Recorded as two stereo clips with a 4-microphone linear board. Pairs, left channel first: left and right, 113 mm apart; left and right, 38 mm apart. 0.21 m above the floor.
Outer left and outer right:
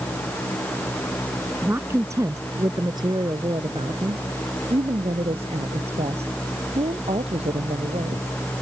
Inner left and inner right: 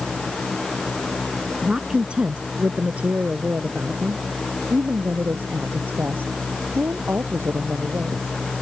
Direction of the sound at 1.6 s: 20° right (ahead or behind).